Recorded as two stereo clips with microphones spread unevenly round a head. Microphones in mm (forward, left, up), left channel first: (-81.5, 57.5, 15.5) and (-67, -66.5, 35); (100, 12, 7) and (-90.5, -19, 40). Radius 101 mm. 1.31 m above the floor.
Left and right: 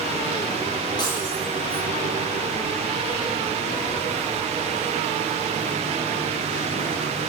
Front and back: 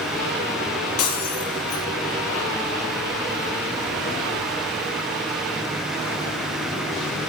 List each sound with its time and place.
1.0 s breaking glass: 25° left, 8.5 m